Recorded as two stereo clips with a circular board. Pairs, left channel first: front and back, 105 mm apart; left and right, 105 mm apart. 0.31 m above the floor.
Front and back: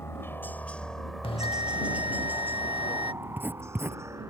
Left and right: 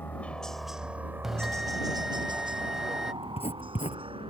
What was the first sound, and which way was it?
A helicopter, 35° left.